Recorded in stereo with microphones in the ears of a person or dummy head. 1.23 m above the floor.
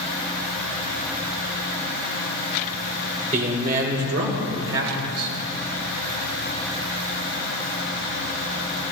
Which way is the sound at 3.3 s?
35° right (ahead or behind).